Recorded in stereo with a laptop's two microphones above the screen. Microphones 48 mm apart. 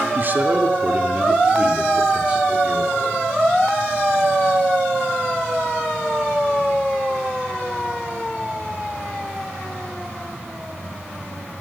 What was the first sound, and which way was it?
A man speaking, 45° right (ahead or behind).